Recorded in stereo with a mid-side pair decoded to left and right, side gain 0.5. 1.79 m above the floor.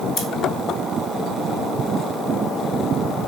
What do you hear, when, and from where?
0.2 s scissors: 65° left, 2.5 m